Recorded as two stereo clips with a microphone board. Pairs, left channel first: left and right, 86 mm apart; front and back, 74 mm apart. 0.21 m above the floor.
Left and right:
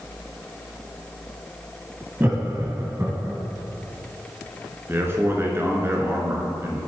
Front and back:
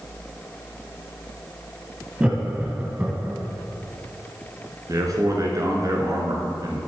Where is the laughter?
120° right, 1.2 m; by 3.4 s 125° right, 1.6 m.